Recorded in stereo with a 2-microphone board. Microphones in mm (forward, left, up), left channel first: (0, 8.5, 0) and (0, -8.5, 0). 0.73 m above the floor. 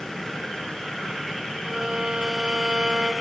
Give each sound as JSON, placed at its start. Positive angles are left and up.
{"t": 1.6, "sound": "a violin", "side_deg": -50, "distance_m": 3.0}